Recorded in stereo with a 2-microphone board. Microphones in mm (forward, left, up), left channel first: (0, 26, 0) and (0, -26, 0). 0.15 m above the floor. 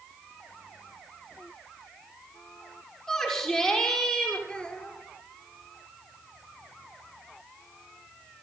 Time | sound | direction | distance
3.1 | a shout | 15° left (ahead or behind) | 6.5 m
4.5 | a child speaking | 20° left (ahead or behind) | 2.5 m